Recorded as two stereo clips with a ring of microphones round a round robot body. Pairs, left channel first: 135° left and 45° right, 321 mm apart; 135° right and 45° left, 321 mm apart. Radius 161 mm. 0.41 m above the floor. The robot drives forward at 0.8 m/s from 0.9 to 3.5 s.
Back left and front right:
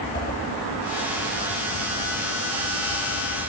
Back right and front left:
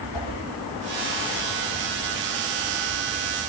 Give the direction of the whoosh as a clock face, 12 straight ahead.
5 o'clock.